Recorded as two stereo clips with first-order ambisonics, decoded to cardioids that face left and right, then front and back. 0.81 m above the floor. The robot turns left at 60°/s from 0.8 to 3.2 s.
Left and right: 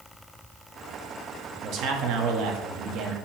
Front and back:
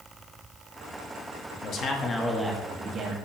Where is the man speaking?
45° right, 1.2 m; by 3.1 s 135° right, 1.2 m.